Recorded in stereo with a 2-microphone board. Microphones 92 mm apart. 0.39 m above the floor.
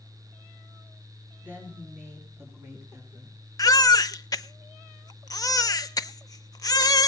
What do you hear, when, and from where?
1.4 s a woman speaking: 20° right (ahead or behind), 5 m; by 3.4 s 35° right (ahead or behind), 5.5 m
3.6 s a baby crying: 45° left (ahead or behind), 0.6 m